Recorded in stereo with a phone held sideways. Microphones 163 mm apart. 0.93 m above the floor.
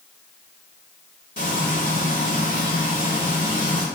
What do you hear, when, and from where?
1.4 s frying: 55° left (ahead or behind), 1.1 m